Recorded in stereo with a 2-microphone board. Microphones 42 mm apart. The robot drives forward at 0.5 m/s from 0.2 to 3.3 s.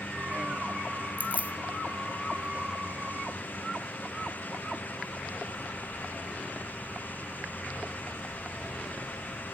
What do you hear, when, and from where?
1.2 s keys jangling: 40° right (ahead or behind), 1.6 m; by 1.5 s 35° right (ahead or behind), 1.7 m